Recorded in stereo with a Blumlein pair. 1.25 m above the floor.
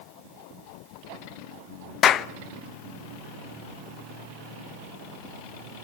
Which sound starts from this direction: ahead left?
A clap, at 2.0 s.